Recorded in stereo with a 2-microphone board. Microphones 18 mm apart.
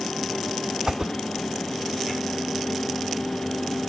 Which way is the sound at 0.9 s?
45° right (ahead or behind).